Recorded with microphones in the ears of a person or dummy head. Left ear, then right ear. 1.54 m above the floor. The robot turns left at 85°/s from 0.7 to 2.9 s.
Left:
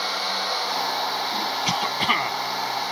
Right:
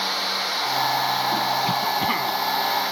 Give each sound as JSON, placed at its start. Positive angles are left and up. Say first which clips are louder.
{"t": 1.6, "sound": "a cough", "louder": "even", "azimuth_deg": 90}